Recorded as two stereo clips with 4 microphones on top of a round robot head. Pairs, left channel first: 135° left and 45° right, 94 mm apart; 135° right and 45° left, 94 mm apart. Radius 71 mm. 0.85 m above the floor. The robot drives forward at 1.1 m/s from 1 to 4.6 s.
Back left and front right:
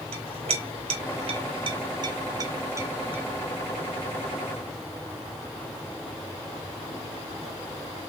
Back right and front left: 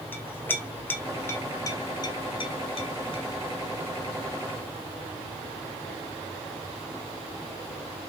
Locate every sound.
0.1 s a clink: 65° right, 3 m; by 3.2 s 115° right, 3 m